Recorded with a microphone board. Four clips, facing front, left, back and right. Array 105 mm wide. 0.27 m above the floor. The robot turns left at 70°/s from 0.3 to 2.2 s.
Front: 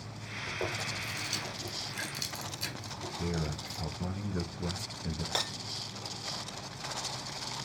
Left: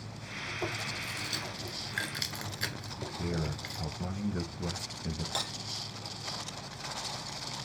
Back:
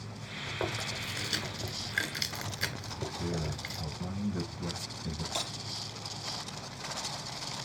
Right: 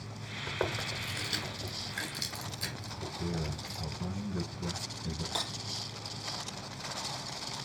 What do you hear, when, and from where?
0.5 s chewing: 100° right, 1.4 m; by 3.8 s 140° left, 1.4 m
3.2 s a man speaking: 55° left, 1.0 m
5.3 s breaking glass: 5° left, 2.5 m